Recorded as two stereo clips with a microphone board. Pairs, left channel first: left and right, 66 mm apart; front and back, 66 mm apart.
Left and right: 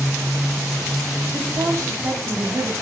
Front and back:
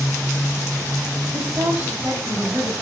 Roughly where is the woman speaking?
Behind right.